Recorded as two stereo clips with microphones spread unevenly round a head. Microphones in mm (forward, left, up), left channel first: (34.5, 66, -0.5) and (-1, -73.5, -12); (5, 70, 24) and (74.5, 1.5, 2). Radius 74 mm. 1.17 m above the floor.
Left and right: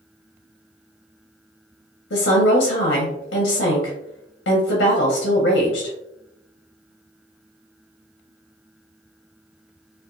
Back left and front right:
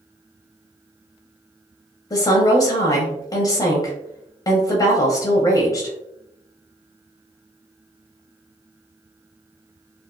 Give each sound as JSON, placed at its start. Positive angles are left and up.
{"t": 2.1, "sound": "a woman speaking", "azimuth_deg": 80, "distance_m": 0.8}